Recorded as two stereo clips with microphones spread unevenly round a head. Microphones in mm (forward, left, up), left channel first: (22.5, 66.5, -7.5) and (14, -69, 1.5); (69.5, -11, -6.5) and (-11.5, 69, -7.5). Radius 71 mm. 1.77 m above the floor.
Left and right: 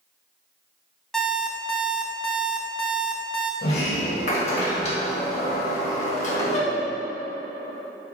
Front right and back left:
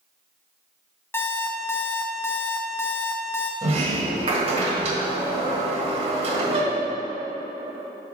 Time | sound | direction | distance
1.1 | an alarm clock | straight ahead | 0.9 m
3.6 | a sliding door | 125° left | 1.4 m